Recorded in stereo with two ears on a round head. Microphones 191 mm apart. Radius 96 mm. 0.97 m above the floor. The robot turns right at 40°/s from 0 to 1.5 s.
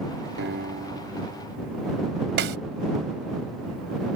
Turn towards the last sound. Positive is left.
turn(degrees=-60)  # may be behind; listen again after turning